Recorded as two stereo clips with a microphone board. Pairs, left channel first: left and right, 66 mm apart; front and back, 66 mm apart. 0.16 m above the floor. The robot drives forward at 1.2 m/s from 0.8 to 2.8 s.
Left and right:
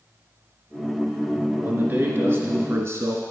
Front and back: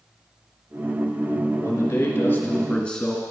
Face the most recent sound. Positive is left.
turn(degrees=-75)